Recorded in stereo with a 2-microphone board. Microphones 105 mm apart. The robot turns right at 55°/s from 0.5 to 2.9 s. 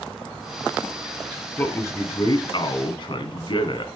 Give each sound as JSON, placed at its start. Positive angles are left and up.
{"t": 1.6, "sound": "a man speaking", "azimuth_deg": 25, "distance_m": 1.5}